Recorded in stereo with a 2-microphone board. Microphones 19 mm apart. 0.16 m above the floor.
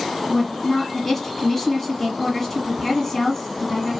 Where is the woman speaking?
20° left (ahead or behind), 1.3 m.